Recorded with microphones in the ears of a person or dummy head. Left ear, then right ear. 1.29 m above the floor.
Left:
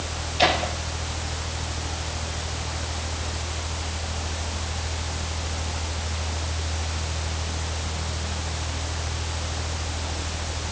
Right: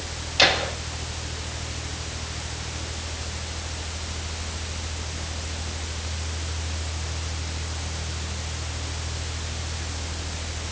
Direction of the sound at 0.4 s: 60° right (ahead or behind).